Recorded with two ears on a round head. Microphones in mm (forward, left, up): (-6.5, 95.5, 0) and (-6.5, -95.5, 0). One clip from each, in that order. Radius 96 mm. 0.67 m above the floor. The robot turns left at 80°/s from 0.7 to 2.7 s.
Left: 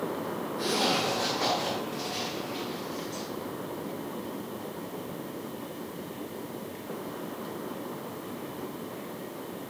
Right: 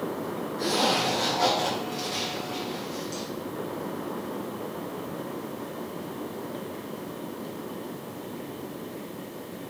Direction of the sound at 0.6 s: 30° left (ahead or behind).